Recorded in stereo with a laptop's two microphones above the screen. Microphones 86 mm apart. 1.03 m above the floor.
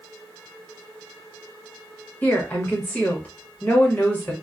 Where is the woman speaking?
20° left (ahead or behind), 1.1 m.